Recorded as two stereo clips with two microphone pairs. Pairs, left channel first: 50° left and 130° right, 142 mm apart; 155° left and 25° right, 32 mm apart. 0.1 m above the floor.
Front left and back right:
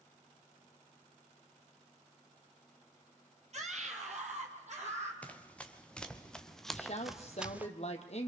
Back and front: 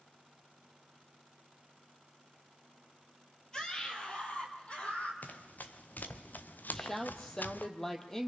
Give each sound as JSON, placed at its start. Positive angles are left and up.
{"t": 3.5, "sound": "a scream", "azimuth_deg": -140, "distance_m": 2.5}
{"t": 5.2, "sound": "running footsteps", "azimuth_deg": 130, "distance_m": 2.5}
{"t": 6.7, "sound": "a woman speaking", "azimuth_deg": 80, "distance_m": 2.5}